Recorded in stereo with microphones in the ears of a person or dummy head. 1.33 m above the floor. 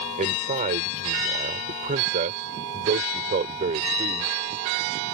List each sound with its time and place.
0.2 s a man speaking: 40° right (ahead or behind)